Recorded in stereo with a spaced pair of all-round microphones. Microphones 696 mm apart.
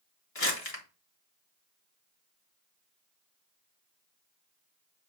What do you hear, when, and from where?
0.3 s crumpling: 55° left (ahead or behind), 2 m